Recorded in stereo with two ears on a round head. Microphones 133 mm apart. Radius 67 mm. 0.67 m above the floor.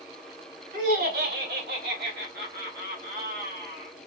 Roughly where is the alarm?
No alarm in this recording.